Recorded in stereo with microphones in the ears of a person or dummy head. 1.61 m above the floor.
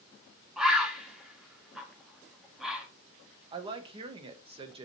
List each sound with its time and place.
0.6 s a bird: 5° right (ahead or behind), 1.0 m
3.5 s a woman speaking: 35° right (ahead or behind), 0.9 m